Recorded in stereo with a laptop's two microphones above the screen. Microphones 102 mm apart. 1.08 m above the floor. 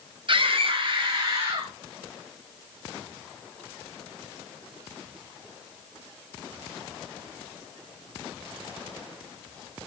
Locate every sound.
0.3 s a scream: 55° right (ahead or behind), 1.1 m; by 1.7 s 25° right (ahead or behind), 1.8 m